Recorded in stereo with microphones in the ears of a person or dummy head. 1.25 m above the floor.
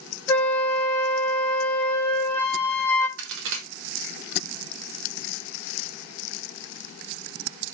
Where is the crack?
75° right (ahead or behind), 0.9 m.